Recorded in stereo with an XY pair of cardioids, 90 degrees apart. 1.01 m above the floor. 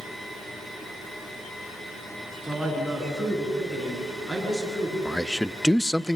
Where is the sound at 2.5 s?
Straight ahead, 9 m; by 5.0 s 5° left, 12 m.